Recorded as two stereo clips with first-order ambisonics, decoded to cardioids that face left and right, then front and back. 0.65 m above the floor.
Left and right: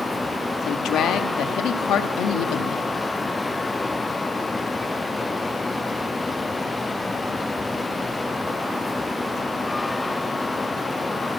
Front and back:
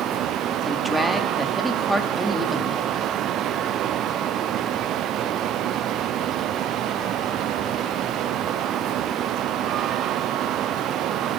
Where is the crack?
No crack in this recording.